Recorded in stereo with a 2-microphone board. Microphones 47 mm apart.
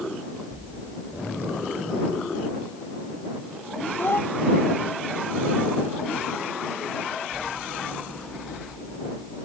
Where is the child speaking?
50° left (ahead or behind).